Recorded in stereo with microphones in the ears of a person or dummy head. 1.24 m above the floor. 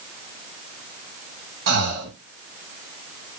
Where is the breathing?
65° right (ahead or behind), 1.0 m.